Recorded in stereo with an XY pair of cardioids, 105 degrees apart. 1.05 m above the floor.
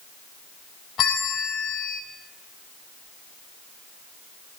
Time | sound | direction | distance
1.0 | a bell | 70° left | 1.4 m